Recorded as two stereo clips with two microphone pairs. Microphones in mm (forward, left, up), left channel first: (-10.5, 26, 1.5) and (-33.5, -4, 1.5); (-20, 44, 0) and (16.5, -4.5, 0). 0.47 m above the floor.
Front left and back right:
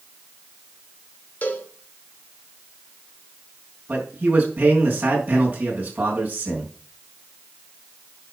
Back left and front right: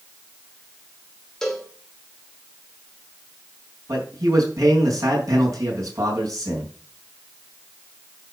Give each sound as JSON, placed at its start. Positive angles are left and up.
{"t": 1.4, "sound": "a cowbell", "azimuth_deg": 50, "distance_m": 1.8}
{"t": 3.9, "sound": "a man speaking", "azimuth_deg": -85, "distance_m": 4.5}